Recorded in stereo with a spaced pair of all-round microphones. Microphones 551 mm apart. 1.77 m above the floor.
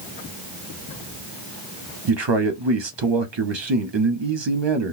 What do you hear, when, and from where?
2.1 s a man speaking: 50° right (ahead or behind), 0.9 m